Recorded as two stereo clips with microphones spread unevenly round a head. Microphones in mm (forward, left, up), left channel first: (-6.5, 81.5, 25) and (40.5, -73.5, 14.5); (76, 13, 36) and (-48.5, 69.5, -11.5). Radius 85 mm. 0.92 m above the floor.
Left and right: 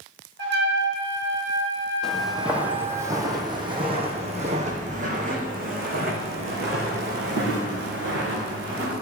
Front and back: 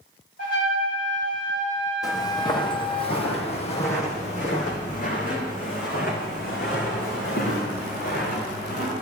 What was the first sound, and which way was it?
A trumpet, 65° right.